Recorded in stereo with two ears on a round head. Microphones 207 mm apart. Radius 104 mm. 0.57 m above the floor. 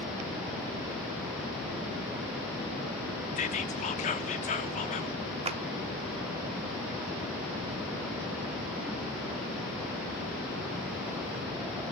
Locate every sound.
3.4 s whispering: 30° left (ahead or behind), 0.9 m
5.5 s a clap: 25° right (ahead or behind), 0.9 m